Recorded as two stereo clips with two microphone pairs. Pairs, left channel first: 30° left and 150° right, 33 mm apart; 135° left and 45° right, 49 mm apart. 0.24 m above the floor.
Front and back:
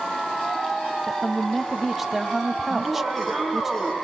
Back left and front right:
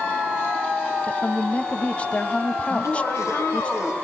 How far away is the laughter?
About 8 m.